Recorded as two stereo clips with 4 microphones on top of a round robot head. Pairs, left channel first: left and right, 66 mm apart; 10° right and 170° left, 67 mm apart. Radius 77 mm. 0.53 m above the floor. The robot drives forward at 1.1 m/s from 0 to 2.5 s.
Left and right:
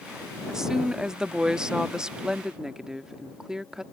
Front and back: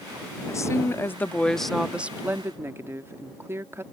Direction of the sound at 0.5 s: 10° right.